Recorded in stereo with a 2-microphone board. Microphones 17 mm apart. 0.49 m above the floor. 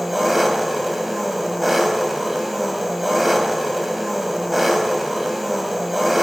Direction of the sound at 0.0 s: 15° right (ahead or behind).